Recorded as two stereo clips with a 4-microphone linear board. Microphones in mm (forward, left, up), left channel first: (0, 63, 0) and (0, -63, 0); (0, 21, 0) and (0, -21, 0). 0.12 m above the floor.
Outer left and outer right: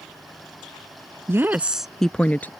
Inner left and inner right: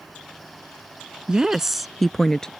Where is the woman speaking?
20° right (ahead or behind); by 2.5 s 15° left (ahead or behind).